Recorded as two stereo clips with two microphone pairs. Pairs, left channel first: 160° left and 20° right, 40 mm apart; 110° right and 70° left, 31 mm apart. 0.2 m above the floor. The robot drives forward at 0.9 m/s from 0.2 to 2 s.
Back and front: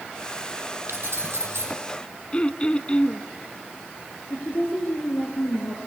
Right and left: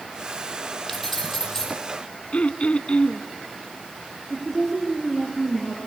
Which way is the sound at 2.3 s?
140° right.